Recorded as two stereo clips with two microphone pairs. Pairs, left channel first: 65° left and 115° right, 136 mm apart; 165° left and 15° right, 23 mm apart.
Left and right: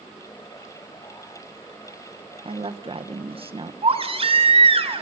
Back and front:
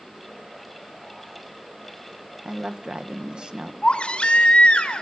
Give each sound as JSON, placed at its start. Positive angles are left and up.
{"t": 2.5, "sound": "a woman speaking", "azimuth_deg": -65, "distance_m": 1.4}
{"t": 3.8, "sound": "a baby crying", "azimuth_deg": -155, "distance_m": 2.5}